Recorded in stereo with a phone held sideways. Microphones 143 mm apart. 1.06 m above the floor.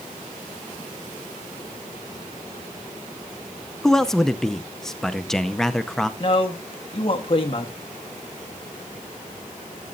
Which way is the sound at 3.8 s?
5° left (ahead or behind).